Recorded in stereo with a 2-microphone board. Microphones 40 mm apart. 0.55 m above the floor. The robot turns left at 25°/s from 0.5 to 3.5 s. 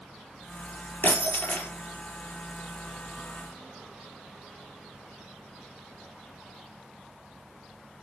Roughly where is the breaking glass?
Left.